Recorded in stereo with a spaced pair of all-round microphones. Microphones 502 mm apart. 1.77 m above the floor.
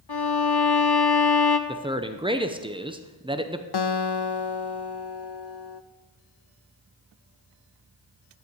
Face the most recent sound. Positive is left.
turn(degrees=55)  # may be behind; listen again after turning